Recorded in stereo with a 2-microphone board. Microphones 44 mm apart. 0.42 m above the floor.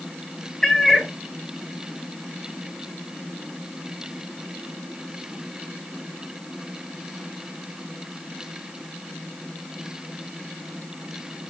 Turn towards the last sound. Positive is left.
turn(degrees=10)  # may be behind; listen again after turning